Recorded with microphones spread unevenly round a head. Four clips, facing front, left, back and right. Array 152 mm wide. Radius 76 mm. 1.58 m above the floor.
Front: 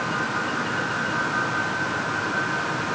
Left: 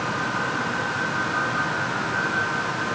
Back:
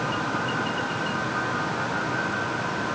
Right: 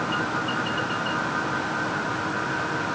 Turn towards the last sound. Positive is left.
No sound to turn to.